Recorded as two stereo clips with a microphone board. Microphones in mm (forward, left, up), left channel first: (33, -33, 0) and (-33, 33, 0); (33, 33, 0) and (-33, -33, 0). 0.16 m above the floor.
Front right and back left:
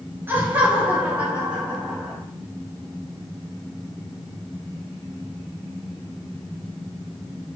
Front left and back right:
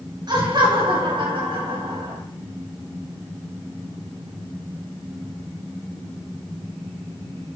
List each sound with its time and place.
0.3 s laughter: 160° right, 2.5 m; by 2.2 s 145° right, 5 m